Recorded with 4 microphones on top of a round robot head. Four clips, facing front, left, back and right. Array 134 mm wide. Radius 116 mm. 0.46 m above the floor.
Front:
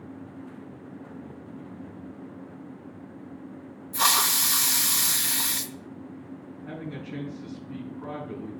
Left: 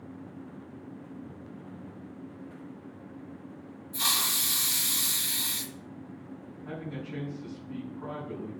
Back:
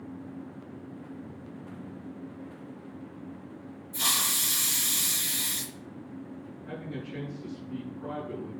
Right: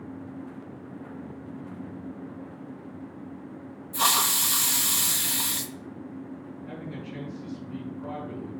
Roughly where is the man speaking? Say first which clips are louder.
Left 2 dB, front 2 dB; ahead left.